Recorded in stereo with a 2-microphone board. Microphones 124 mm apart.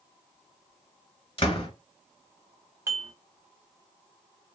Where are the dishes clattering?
20° right (ahead or behind), 1.1 m.